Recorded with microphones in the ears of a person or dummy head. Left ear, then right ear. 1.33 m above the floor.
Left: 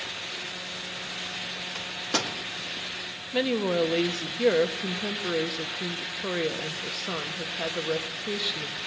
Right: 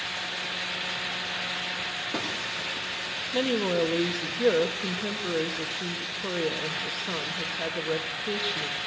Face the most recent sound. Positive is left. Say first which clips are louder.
# left 1 dB
turn(degrees=10)  # may be behind; listen again after turning